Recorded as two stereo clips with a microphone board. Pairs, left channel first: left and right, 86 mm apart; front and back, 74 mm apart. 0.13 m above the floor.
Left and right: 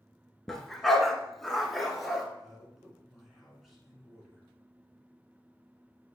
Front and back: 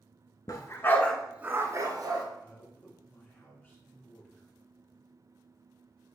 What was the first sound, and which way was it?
A dog barking, 5° left.